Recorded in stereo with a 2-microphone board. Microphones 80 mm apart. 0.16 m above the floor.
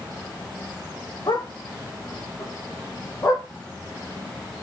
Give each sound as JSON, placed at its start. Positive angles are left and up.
{"t": 1.3, "sound": "a dog barking", "side_deg": 60, "distance_m": 4.0}